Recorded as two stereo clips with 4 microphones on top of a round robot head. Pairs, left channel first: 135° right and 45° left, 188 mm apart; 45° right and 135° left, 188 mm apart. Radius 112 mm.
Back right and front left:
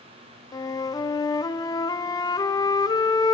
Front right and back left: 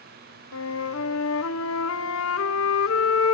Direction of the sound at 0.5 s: 65° right.